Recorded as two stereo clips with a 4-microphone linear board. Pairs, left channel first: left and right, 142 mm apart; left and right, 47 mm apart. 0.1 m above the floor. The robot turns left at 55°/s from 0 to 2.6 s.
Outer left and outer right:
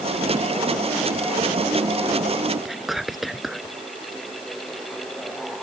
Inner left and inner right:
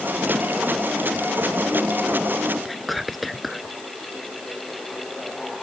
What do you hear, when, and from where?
2.6 s whispering: centre (ahead or behind)